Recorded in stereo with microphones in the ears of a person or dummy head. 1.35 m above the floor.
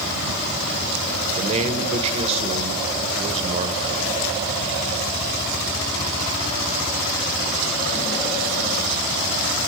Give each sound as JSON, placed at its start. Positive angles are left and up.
{"t": 1.4, "sound": "a man speaking", "side_deg": -35, "distance_m": 1.3}